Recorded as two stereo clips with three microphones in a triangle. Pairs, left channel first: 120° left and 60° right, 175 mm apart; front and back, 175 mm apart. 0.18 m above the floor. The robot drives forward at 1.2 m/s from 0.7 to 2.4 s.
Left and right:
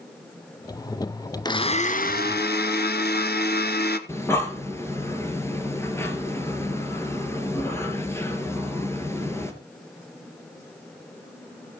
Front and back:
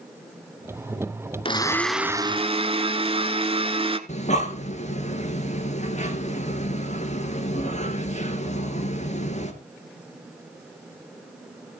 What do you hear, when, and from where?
1.4 s a blender: 60° left, 1.1 m; by 4.0 s 125° left, 1.1 m
4.1 s breathing: 45° left, 2.0 m